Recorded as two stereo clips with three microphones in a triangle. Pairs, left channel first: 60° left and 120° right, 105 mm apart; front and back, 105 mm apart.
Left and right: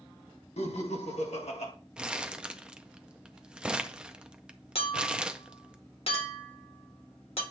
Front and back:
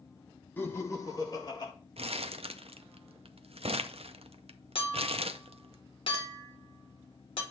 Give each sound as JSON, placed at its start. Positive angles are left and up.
{"t": 0.6, "sound": "laughter", "azimuth_deg": 70, "distance_m": 1.5}
{"t": 2.0, "sound": "crumpling", "azimuth_deg": 160, "distance_m": 0.5}
{"t": 4.8, "sound": "a clink", "azimuth_deg": 35, "distance_m": 1.6}